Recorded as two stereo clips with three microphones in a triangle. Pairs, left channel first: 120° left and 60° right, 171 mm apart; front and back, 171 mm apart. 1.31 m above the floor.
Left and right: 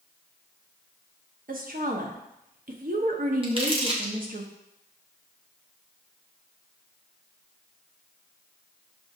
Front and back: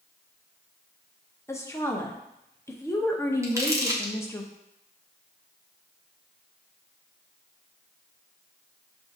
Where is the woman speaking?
70° right, 0.7 m.